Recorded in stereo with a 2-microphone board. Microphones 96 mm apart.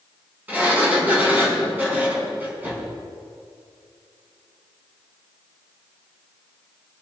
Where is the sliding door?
15° right (ahead or behind), 4.5 m.